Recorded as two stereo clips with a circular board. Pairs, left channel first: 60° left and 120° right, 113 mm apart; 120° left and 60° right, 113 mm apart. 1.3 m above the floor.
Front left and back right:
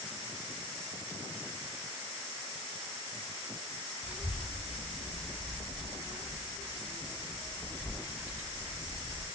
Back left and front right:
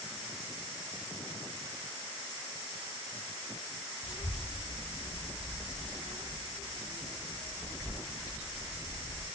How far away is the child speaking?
About 0.9 m.